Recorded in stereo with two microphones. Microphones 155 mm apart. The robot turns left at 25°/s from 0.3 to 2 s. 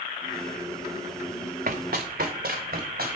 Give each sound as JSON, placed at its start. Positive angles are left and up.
{"t": 1.7, "sound": "running footsteps", "side_deg": -65, "distance_m": 1.1}